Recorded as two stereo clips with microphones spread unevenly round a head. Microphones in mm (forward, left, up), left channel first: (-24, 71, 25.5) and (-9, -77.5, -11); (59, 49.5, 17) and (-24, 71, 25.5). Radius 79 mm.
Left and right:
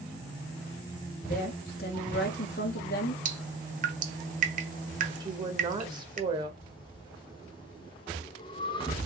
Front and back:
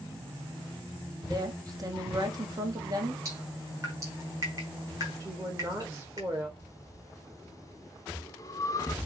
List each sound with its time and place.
1.3 s a woman speaking: 120° left, 1.5 m
3.2 s dripping: 125° right, 1.2 m
5.2 s a woman speaking: 130° right, 1.5 m
6.6 s breathing: 40° left, 0.9 m